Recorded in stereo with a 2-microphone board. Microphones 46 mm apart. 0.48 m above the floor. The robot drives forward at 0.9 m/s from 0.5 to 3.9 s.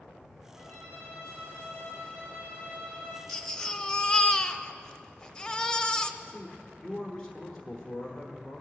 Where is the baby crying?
10° left (ahead or behind), 1.1 m; by 6.1 s 15° left (ahead or behind), 0.6 m.